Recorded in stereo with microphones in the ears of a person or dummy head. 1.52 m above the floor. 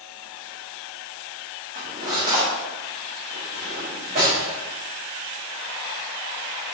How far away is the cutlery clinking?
About 0.9 m.